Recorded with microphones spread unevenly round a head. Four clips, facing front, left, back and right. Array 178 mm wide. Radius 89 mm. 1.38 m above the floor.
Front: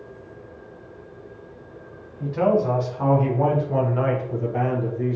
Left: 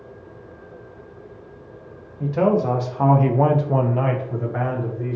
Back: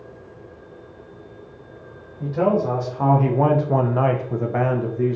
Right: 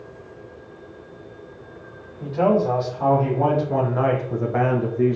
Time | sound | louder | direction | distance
2.2 | a man speaking | even, even | 115° left | 1.1 m